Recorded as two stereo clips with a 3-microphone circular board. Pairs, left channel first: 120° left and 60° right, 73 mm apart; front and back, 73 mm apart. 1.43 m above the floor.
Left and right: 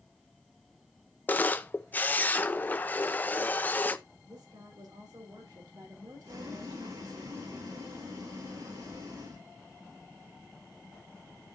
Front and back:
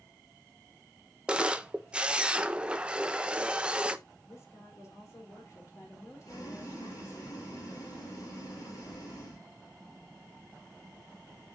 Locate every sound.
1.3 s a camera shutter: 125° left, 0.5 m
4.2 s a woman speaking: 45° right, 3.5 m
6.2 s boiling: 40° right, 4.5 m